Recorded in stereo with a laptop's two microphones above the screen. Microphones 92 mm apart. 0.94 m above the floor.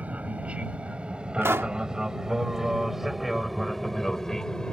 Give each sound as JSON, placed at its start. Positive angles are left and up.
{"t": 0.0, "sound": "an aircraft", "side_deg": -15}
{"t": 1.4, "sound": "a pop", "side_deg": -30}